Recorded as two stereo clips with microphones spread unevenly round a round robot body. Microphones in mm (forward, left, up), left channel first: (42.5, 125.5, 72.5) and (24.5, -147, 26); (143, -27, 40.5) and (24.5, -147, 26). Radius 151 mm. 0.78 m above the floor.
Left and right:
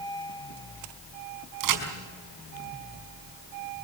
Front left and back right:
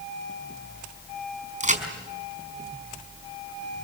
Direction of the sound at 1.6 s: 90° right.